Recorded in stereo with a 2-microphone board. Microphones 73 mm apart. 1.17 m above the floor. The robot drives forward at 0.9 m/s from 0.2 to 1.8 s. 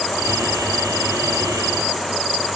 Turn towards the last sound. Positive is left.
No sound to turn to.